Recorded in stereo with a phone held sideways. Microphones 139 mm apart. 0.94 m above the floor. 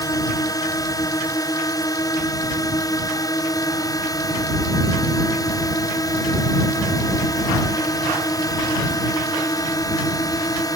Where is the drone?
25° left (ahead or behind).